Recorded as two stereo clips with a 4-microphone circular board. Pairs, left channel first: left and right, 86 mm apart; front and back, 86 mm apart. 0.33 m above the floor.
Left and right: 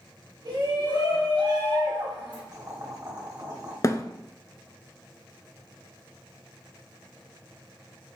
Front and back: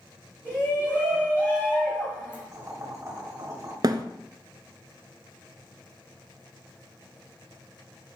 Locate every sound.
0.5 s a shout: 60° right, 2.5 m
2.5 s boiling: 135° right, 2.5 m
3.8 s a thud: 140° left, 0.6 m